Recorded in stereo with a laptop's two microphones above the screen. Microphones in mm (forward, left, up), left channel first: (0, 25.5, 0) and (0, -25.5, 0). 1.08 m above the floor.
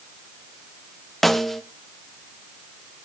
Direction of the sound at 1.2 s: Centre (ahead or behind).